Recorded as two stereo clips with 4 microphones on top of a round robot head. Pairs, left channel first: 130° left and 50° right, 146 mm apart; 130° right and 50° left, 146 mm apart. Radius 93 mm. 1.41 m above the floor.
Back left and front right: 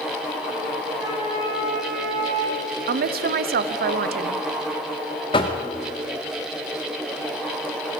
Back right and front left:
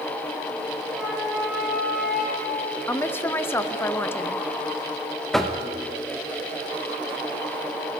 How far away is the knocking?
About 0.6 m.